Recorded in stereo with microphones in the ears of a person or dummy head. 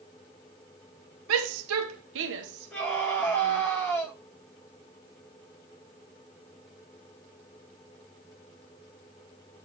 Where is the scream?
5° left (ahead or behind), 6.5 m.